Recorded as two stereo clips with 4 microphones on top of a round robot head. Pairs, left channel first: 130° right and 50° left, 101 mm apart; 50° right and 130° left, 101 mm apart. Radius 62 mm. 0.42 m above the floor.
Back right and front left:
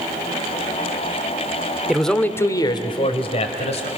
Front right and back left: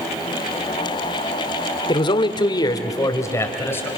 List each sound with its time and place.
1.9 s a man speaking: 35° right, 1.2 m; by 3.9 s 120° right, 2.5 m